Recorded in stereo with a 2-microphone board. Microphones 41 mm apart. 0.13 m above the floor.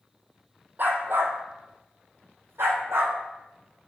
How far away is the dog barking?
About 1.4 m.